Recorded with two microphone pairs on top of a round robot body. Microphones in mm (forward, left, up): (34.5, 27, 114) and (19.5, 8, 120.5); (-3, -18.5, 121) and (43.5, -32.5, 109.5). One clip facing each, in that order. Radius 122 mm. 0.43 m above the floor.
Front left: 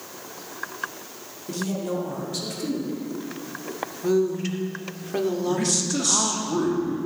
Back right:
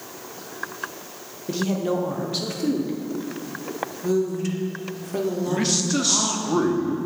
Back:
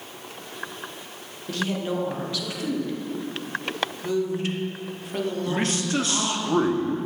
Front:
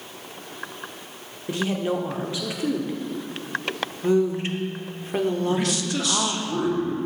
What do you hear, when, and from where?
1.5 s a woman speaking: 65° right, 1.1 m
4.0 s a woman speaking: 10° left, 1.3 m
5.5 s a man speaking: 170° left, 1.2 m